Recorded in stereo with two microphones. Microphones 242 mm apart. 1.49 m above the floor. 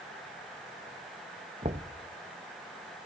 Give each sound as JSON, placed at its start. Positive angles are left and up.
{"t": 1.6, "sound": "knocking", "side_deg": -30, "distance_m": 0.8}